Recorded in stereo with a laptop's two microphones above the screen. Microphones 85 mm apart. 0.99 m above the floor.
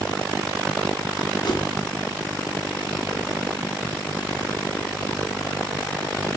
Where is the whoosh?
55° left (ahead or behind), 2 m.